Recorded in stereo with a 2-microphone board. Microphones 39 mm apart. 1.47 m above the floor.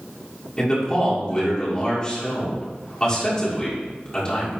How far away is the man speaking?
About 2 m.